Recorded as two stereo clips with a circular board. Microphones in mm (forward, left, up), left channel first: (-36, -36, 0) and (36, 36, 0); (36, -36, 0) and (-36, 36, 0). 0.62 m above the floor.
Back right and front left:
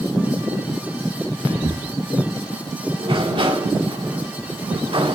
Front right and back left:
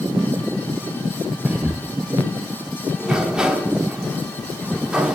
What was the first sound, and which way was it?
Whispering, 60° left.